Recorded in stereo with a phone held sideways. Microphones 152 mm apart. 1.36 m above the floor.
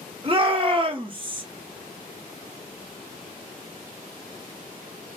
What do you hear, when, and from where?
0.2 s a shout: 35° right (ahead or behind), 1.6 m